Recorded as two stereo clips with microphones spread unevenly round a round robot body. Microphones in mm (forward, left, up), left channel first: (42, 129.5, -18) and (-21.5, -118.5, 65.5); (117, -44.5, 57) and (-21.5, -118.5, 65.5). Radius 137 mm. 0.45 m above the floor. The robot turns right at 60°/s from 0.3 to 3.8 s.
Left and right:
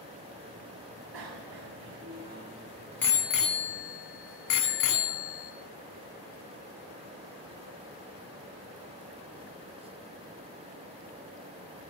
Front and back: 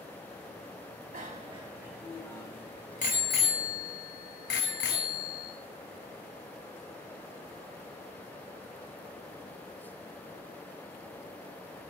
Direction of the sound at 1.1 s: 115° right.